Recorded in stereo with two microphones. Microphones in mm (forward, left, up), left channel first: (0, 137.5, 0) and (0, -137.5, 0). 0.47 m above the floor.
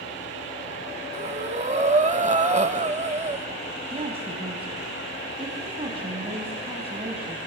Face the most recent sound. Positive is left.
turn(degrees=-20)  # may be behind; listen again after turning